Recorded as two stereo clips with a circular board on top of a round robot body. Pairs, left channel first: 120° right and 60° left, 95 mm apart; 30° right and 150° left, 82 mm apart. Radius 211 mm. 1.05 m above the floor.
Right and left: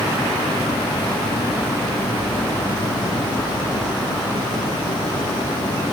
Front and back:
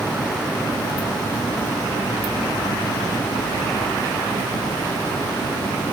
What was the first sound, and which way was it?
Only background noise.